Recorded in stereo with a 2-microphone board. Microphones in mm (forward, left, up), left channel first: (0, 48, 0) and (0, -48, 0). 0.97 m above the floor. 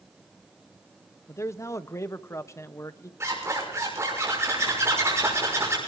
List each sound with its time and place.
1.3 s a man speaking: 30° left (ahead or behind), 0.5 m
3.2 s a zipper: 30° right (ahead or behind), 6 m